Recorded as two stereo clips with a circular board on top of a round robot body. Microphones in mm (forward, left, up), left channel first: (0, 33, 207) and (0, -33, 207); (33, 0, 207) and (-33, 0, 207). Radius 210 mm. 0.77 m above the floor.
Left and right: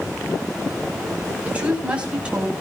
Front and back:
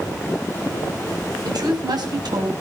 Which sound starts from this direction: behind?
A woman speaking, at 1.4 s.